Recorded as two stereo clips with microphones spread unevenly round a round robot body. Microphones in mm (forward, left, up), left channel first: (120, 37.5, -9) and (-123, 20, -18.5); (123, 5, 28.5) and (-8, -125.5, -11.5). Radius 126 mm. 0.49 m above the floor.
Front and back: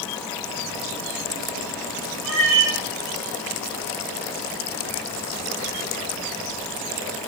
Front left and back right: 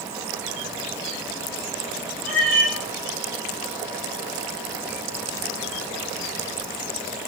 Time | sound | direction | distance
2.2 | a cat meowing | 130° right | 4 m